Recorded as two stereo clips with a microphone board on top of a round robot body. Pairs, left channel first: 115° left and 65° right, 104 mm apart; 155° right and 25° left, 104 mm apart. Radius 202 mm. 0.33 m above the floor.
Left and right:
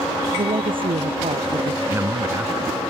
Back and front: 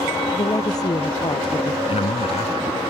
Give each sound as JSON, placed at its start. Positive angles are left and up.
{"t": 0.3, "sound": "a woman speaking", "azimuth_deg": -105}
{"t": 1.9, "sound": "a man speaking", "azimuth_deg": -135}